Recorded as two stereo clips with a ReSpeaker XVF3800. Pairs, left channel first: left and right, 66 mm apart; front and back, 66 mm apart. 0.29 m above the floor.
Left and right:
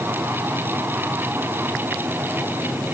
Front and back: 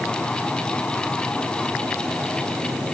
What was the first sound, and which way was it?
Only background noise.